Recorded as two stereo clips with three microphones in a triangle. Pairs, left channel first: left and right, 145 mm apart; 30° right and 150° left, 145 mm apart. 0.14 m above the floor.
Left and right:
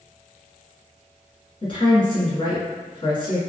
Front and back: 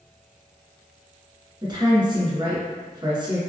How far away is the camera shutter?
No camera shutter in this recording.